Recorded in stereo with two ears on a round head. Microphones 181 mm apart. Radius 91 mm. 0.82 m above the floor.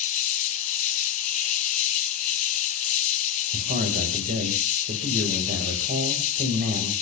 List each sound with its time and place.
0.0 s an insect: 35° left (ahead or behind), 0.8 m
3.5 s a man speaking: 50° right (ahead or behind), 3 m